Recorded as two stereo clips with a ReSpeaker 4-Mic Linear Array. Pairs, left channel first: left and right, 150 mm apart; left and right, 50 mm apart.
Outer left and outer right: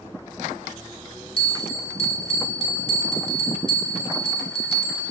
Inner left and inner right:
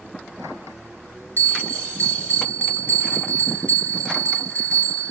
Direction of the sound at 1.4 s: 40° left (ahead or behind).